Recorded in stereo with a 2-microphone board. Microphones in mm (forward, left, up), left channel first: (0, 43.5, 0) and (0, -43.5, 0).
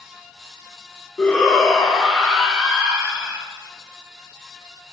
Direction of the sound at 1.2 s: 15° left (ahead or behind).